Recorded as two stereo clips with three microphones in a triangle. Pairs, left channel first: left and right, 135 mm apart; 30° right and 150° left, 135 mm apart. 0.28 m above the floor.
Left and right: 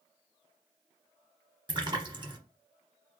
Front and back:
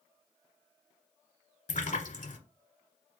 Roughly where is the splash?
Ahead right.